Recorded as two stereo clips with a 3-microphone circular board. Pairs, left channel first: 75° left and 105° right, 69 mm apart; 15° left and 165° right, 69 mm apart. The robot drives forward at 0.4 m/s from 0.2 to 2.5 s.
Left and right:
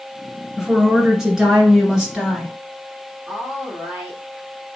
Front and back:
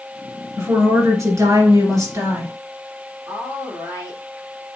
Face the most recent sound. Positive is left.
turn(degrees=-155)